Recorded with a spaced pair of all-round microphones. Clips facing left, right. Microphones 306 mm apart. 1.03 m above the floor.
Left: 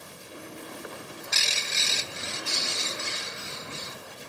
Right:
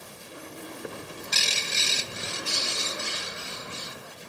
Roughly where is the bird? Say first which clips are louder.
Right 3 dB; right.